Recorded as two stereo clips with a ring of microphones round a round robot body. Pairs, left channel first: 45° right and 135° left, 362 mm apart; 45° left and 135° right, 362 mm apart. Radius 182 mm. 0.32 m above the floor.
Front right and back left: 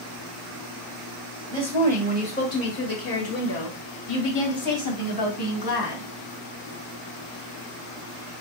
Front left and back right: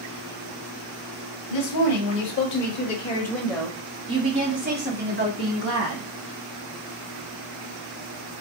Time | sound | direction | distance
1.5 | a woman speaking | 40° left | 1.5 m